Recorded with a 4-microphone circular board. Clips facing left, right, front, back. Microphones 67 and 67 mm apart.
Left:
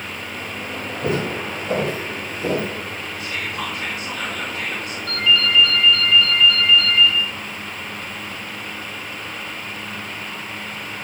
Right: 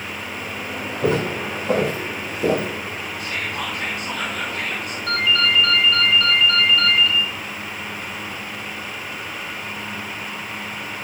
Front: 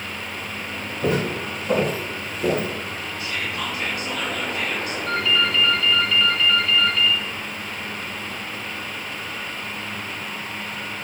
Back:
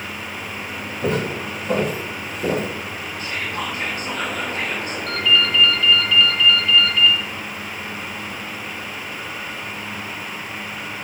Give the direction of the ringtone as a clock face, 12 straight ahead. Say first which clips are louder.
Even, back 2 dB; 3 o'clock.